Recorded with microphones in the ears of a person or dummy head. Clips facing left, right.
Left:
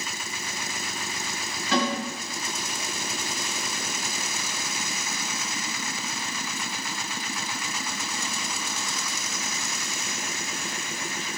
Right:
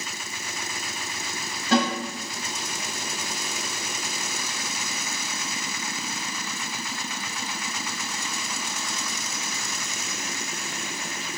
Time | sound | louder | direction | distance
1.7 | a snare drum | right 3 dB | 50° right (ahead or behind) | 1.6 m